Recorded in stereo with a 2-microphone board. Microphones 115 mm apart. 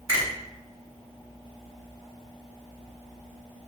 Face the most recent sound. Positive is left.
turn(degrees=-25)  # may be behind; listen again after turning